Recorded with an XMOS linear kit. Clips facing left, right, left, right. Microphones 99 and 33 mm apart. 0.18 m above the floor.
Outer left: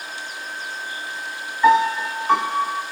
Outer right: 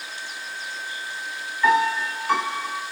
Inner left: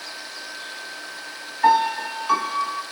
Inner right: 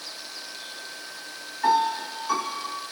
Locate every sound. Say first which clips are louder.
1.6 s a piano: outer left 4 dB, inner left 4 dB; 20° left (ahead or behind), 0.6 m